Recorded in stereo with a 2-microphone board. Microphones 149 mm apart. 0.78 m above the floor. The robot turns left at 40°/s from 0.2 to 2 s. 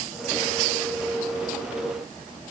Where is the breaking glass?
No breaking glass in this recording.